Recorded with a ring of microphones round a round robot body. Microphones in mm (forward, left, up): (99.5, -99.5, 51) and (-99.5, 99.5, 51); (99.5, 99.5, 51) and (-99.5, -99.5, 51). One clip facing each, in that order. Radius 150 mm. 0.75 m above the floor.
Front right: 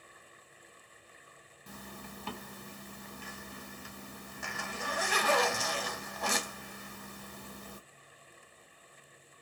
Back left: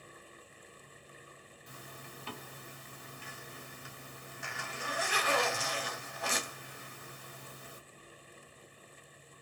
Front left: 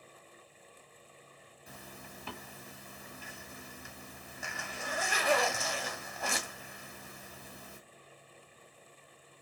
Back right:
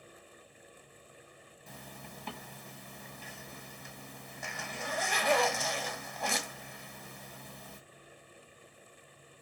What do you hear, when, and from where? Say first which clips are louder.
1.7 s a zipper: front right 5 dB, back right 1 dB; 35° right, 1.2 m